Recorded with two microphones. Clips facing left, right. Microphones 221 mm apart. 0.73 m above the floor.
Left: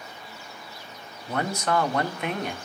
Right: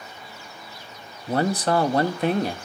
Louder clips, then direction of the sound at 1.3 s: Right 5 dB; 35° right (ahead or behind).